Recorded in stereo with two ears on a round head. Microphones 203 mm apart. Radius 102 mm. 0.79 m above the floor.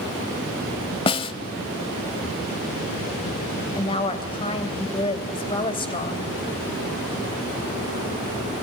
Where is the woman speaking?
25° left (ahead or behind), 3.5 m.